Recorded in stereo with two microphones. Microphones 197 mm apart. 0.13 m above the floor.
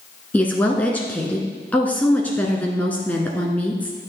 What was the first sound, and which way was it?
A woman speaking, 10° left (ahead or behind).